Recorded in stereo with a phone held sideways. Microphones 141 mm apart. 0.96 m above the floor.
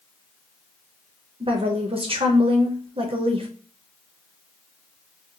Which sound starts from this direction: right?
A woman speaking, at 1.4 s.